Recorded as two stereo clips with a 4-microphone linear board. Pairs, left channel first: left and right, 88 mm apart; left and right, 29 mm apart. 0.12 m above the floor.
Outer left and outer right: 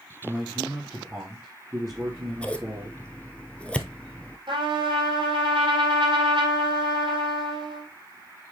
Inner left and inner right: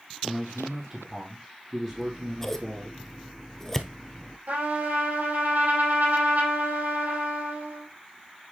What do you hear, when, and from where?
0.2 s a man speaking: 30° right (ahead or behind), 3.5 m
1.9 s scissors: 15° left (ahead or behind), 0.8 m
4.5 s a trumpet: 70° right (ahead or behind), 5 m